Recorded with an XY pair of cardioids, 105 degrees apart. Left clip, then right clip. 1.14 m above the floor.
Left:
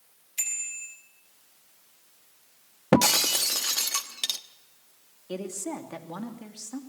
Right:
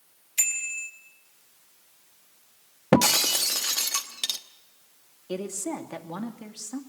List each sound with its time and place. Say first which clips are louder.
0.4 s a bicycle bell: right 5 dB; 35° right, 5.5 m
2.9 s breaking glass: right 1 dB; straight ahead, 1.1 m
5.3 s a woman speaking: right 2 dB; 15° right, 3 m